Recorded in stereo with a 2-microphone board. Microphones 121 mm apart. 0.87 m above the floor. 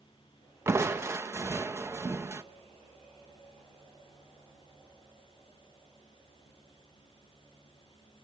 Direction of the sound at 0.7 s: 20° right (ahead or behind).